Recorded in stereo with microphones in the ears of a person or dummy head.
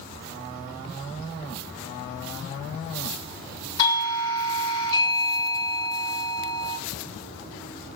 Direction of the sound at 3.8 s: 20° left (ahead or behind).